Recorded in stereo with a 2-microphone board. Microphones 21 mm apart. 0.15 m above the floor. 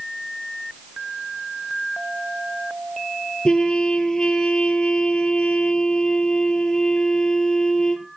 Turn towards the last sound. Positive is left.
turn(degrees=45)  # may be behind; listen again after turning